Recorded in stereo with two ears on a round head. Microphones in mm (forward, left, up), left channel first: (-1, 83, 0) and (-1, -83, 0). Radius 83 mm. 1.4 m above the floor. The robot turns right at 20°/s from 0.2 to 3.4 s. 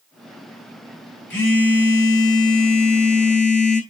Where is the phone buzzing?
10° left, 4.5 m; by 3.8 s 50° left, 4.5 m.